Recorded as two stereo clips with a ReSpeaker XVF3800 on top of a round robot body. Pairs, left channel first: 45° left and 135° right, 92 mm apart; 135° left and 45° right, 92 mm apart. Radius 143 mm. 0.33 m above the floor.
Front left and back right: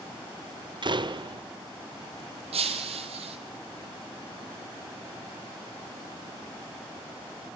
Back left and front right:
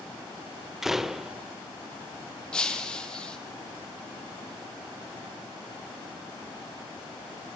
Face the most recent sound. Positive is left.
turn(degrees=-145)